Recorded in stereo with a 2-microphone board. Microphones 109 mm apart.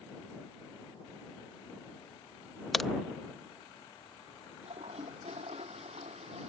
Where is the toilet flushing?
75° right (ahead or behind).